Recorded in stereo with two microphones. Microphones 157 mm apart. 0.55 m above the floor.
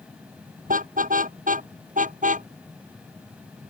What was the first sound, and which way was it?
A car horn, 55° right (ahead or behind).